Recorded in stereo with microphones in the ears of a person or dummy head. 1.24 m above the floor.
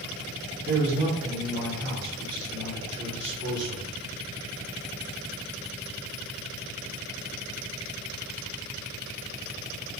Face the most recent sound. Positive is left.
turn(degrees=-5)  # may be behind; listen again after turning